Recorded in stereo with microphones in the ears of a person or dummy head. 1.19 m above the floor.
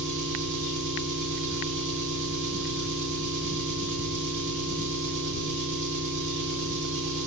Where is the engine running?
70° right (ahead or behind), 1.6 m.